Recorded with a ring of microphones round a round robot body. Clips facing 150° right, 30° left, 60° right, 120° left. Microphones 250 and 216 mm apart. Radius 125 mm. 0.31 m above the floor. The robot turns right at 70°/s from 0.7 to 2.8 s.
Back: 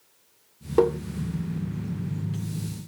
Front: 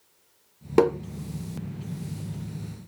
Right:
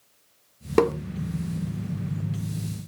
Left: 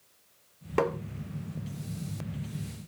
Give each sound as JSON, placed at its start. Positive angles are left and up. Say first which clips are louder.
{"t": 0.8, "sound": "tapping", "louder": "front 1 dB, right 8 dB", "azimuth_deg": -20, "distance_m": 0.9}